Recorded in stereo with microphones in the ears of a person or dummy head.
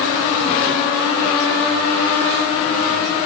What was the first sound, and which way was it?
Only background noise.